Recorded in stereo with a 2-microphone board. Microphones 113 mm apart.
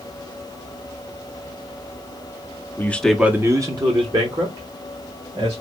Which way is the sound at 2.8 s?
20° left (ahead or behind).